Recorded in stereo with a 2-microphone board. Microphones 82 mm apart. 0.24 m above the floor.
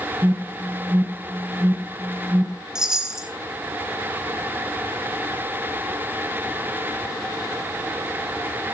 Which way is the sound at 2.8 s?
10° right (ahead or behind).